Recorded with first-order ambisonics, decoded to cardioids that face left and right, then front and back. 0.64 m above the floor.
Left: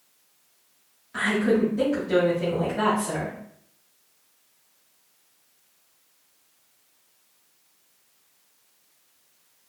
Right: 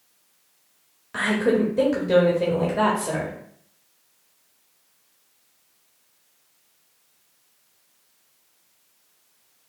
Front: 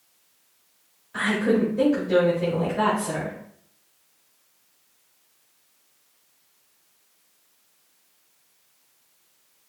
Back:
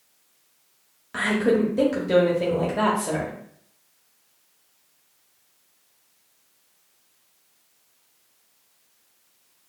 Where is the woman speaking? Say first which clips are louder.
Right 1 dB, back 1 dB; 140° right, 1.0 m.